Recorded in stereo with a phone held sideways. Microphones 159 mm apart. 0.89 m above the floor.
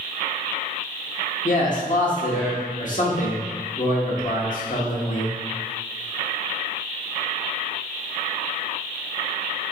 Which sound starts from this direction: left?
A man speaking, at 1.4 s.